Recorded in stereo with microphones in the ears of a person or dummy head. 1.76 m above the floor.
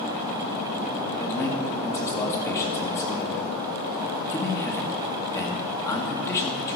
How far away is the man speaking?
About 1.8 m.